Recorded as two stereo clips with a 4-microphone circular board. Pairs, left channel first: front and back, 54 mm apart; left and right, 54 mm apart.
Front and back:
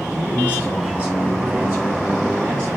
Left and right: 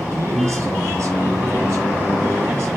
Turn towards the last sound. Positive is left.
turn(degrees=-135)